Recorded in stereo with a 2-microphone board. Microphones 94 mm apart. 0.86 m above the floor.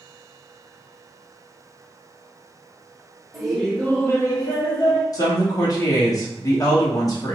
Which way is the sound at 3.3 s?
5° right (ahead or behind).